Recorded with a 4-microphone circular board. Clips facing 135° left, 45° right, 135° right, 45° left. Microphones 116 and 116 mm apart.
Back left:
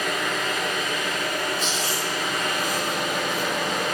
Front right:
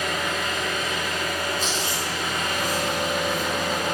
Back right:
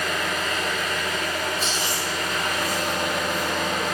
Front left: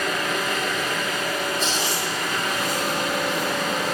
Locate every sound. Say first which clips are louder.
0.0 s an engine running: even, front left 2 dB; 130° left, 1.1 m
1.6 s chewing: even, front left 2 dB; 135° left, 1.2 m